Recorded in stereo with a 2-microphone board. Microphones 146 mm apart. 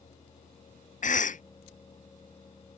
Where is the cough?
60° left (ahead or behind).